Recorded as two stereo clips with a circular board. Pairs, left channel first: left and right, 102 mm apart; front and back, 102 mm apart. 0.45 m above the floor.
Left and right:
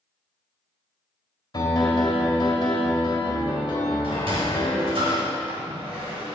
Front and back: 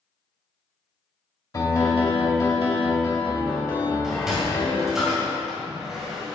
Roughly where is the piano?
Ahead left.